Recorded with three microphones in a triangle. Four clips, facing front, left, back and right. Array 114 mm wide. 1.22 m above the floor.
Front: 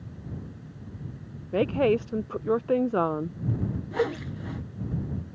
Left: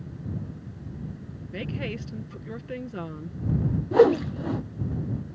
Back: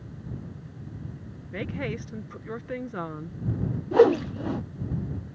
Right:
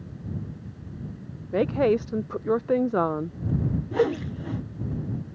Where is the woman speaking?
50° right.